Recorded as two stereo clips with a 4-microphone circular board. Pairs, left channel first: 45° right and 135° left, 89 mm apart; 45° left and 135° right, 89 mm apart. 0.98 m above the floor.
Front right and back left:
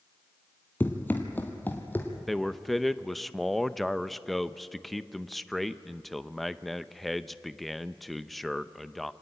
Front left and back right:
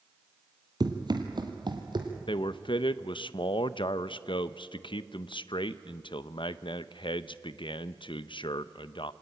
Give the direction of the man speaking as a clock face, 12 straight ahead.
11 o'clock.